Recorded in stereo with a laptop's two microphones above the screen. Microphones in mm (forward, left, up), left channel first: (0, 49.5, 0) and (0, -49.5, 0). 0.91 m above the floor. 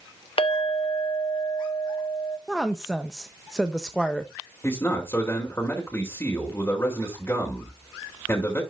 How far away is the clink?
About 0.7 m.